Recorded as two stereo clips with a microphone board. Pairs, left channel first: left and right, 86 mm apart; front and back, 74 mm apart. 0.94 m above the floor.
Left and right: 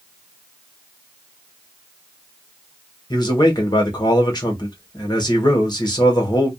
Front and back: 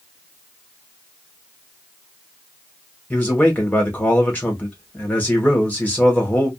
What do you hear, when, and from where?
3.1 s a man speaking: 65° left, 1.4 m